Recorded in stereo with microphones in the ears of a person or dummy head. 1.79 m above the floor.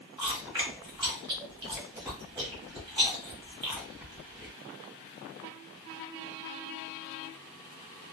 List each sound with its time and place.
0.2 s chewing: 25° right (ahead or behind), 1.6 m